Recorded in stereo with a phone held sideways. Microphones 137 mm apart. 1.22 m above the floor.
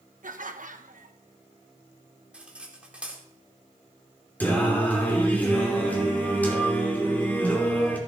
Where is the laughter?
75° right (ahead or behind), 1.2 m.